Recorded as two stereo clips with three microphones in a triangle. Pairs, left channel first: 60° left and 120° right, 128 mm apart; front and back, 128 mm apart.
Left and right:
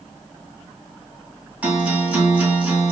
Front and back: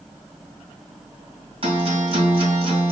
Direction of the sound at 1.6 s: 165° left.